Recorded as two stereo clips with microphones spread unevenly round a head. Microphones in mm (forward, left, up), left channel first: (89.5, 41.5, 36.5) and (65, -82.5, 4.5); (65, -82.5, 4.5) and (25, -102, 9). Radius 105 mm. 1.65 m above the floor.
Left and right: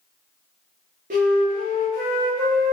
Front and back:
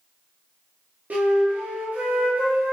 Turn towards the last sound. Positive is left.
turn(degrees=-130)